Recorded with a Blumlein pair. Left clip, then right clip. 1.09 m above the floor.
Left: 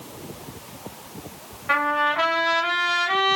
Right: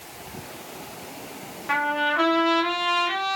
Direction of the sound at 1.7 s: 10° left.